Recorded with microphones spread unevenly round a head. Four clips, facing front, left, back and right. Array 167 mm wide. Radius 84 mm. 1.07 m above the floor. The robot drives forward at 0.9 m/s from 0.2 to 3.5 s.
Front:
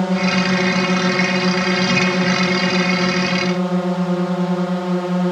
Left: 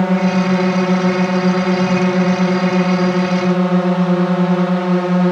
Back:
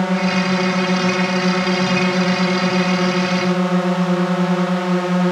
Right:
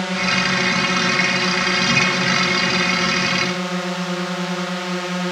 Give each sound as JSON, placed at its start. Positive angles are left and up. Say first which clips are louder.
{"t": 0.0, "sound": "a drone", "louder": "left 7 dB, even", "azimuth_deg": 80}